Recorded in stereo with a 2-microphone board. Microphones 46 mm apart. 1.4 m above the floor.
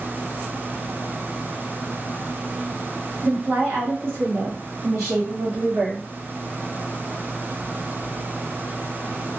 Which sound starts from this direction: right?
A woman speaking, at 3.2 s.